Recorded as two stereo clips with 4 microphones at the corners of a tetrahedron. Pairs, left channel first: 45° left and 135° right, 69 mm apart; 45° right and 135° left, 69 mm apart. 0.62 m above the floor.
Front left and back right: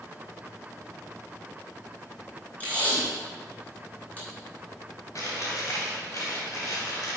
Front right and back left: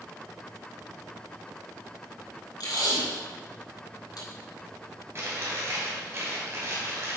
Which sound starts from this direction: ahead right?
Tape being pulled, at 2.6 s.